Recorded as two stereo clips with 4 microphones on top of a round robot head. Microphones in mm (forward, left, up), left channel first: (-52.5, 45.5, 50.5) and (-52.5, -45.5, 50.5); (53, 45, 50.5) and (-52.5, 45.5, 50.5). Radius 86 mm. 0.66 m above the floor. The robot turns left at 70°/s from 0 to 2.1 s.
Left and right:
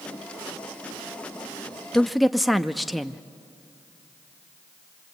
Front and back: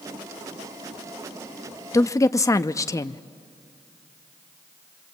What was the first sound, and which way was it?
A woman speaking, 10° left.